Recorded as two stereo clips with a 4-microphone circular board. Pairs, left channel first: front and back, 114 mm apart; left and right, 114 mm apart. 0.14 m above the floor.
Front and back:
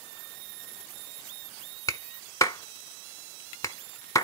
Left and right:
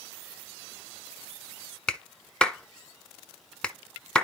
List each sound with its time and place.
1.9 s a clap: 15° left, 0.9 m